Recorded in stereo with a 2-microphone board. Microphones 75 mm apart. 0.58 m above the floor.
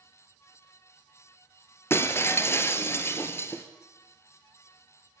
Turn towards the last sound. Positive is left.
turn(degrees=35)  # may be behind; listen again after turning